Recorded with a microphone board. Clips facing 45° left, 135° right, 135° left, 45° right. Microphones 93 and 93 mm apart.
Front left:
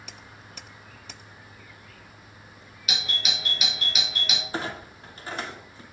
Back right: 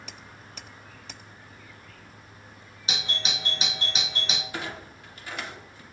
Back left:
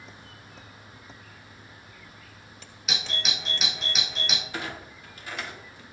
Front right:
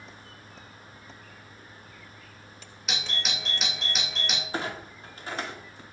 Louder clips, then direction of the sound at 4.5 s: Front left 3 dB, front right 3 dB; straight ahead.